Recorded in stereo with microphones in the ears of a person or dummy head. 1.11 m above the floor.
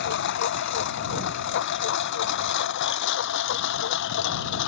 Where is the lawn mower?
65° left (ahead or behind); by 4.7 s 70° left (ahead or behind).